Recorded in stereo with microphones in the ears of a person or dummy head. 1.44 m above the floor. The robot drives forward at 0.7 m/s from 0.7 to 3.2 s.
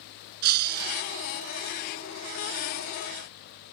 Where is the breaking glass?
55° right (ahead or behind).